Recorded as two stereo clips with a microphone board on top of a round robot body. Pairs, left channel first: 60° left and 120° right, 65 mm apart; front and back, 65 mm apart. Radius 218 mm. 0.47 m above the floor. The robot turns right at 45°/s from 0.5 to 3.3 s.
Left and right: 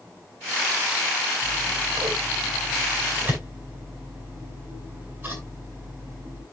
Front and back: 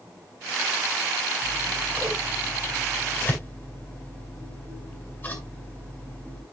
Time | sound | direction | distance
1.4 | scissors | 145° right | 9 m